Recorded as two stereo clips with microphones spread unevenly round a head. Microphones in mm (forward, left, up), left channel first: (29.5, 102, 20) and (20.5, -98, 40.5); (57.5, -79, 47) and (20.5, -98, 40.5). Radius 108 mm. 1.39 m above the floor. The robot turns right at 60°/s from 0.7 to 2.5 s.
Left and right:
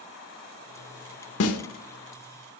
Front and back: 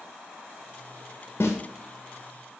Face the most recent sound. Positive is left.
turn(degrees=150)